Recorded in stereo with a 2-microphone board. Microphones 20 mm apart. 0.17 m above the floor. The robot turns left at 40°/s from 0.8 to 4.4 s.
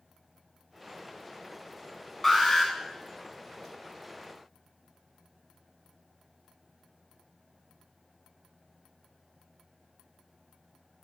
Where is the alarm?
10° left (ahead or behind), 0.9 m; by 2.7 s 20° left (ahead or behind), 0.9 m.